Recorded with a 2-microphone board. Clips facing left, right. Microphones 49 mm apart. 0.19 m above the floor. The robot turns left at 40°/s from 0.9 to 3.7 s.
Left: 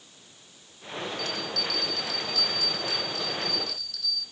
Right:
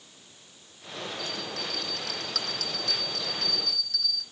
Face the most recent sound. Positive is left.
turn(degrees=-120)